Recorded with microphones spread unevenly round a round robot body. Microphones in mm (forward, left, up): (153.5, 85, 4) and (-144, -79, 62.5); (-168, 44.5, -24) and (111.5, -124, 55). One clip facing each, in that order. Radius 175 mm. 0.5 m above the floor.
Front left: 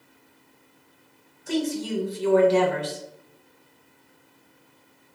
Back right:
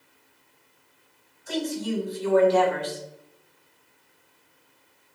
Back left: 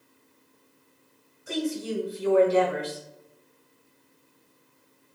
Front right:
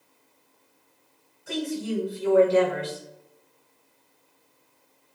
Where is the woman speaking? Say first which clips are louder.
Front left 2 dB, even; 70° left, 1.9 m.